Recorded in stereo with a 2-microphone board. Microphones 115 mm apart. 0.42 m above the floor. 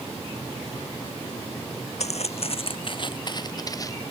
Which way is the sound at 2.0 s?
70° left (ahead or behind).